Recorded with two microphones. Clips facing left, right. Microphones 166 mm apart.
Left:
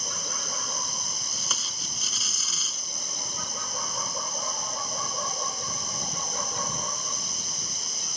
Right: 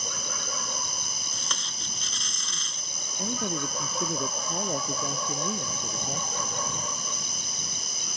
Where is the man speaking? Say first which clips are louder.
Right 11 dB; 75° right (ahead or behind).